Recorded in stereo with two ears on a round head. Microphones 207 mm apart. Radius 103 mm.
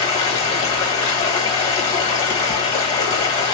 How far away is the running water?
About 1.0 m.